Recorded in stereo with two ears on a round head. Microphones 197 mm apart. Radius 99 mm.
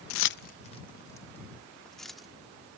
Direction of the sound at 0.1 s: 70° left (ahead or behind).